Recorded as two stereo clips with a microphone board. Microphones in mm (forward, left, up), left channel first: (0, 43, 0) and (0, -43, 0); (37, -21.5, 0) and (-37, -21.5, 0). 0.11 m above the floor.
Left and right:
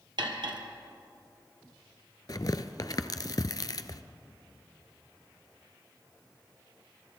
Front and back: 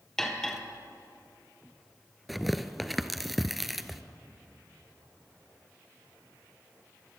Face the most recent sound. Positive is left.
turn(degrees=90)